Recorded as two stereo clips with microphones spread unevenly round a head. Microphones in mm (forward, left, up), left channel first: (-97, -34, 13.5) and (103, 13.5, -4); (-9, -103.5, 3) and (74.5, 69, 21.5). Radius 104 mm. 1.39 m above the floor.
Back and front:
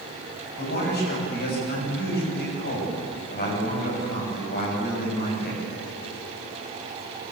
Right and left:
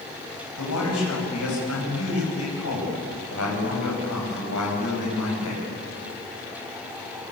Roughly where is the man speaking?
Behind right.